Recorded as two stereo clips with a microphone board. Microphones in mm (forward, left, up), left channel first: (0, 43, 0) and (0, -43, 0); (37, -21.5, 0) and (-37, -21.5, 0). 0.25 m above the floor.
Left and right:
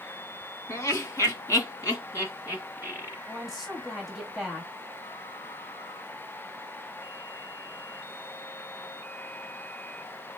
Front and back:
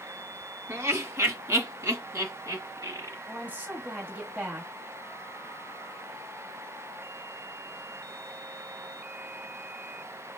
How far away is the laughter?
About 1.6 m.